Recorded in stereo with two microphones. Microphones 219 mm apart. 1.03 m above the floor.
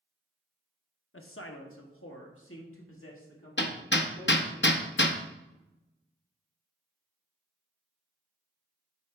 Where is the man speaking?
70° left (ahead or behind), 0.8 m.